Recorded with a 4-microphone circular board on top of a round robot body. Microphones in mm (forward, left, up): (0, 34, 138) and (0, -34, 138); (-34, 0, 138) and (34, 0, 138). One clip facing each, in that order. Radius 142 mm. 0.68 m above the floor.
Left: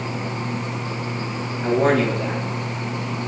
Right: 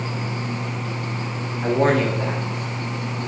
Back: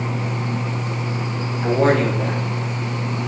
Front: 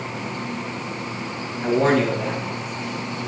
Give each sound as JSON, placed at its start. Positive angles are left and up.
{"t": 1.6, "sound": "a man speaking", "azimuth_deg": -125, "distance_m": 3.0}